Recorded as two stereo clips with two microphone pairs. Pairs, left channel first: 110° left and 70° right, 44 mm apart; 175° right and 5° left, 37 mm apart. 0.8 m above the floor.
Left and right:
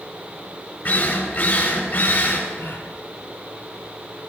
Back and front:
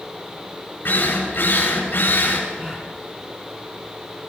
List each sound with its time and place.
0.8 s a drill: 150° left, 8.5 m
2.6 s a gasp: 80° left, 3.5 m